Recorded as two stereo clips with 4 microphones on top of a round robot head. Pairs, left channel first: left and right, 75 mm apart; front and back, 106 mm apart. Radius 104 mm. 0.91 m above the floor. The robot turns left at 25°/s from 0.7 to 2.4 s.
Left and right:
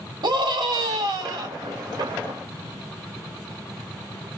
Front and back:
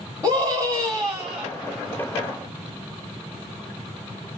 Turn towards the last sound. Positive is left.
turn(degrees=-125)